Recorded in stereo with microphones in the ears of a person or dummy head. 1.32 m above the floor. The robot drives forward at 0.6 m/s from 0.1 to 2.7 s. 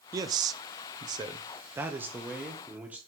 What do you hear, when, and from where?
0.1 s a man speaking: 20° right (ahead or behind), 0.6 m; by 3.0 s 10° right (ahead or behind), 1.3 m